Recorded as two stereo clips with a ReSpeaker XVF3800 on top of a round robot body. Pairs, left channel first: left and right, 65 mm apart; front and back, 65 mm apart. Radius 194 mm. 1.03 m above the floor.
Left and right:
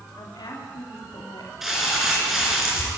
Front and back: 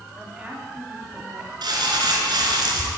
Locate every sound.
0.2 s a woman speaking: 105° left, 3.5 m
1.6 s crumpling: 175° right, 4 m